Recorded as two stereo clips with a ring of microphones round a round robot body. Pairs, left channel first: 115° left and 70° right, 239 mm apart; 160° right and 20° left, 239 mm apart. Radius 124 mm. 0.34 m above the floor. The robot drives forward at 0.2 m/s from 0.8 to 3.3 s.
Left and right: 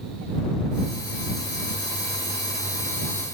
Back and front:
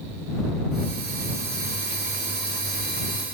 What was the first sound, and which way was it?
Only background noise.